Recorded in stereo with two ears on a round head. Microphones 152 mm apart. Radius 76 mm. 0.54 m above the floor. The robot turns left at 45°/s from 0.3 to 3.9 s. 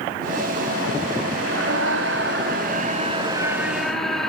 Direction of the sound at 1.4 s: 70° right.